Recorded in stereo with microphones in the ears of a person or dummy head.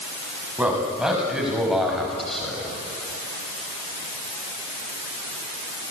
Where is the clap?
No clap in this recording.